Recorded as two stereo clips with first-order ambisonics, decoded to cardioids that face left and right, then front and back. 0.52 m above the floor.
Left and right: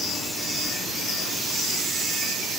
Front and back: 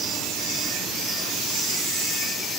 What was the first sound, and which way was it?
Only background noise.